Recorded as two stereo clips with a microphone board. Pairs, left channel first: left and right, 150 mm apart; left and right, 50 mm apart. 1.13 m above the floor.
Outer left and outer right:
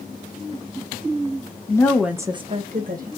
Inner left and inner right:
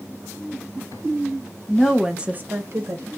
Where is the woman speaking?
20° left (ahead or behind), 0.7 m; by 3.1 s 65° right (ahead or behind), 1.0 m.